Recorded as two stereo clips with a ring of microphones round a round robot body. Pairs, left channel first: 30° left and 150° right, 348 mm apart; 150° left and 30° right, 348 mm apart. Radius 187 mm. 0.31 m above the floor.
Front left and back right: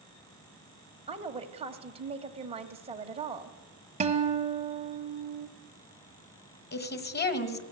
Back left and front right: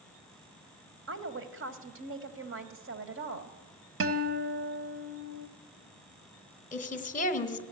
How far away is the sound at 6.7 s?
About 1.9 m.